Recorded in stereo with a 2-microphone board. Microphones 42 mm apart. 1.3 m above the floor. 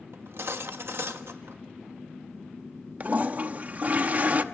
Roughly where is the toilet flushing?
Right.